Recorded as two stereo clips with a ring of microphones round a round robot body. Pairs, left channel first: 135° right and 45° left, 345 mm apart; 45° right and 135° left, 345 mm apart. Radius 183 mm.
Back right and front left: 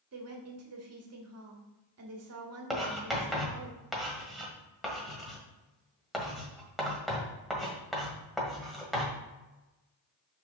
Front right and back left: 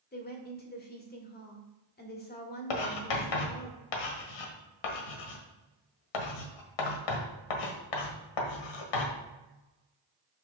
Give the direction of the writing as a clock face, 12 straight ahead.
2 o'clock.